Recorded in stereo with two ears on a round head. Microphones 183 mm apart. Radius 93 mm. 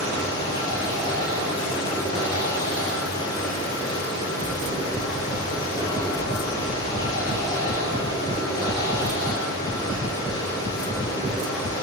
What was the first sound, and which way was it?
Running water, 20° left (ahead or behind).